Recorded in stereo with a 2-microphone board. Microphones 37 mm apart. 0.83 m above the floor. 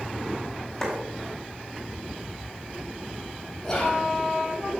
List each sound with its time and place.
0.8 s a clap: 15° left (ahead or behind), 4 m
3.6 s whispering: 20° left (ahead or behind), 4 m